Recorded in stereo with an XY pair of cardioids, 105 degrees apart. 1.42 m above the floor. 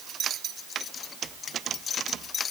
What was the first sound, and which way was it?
Only background noise.